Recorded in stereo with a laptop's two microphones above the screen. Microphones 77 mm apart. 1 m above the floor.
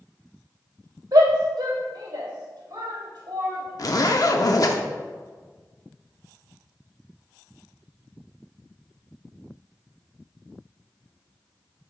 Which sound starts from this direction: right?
A shout, at 1.1 s.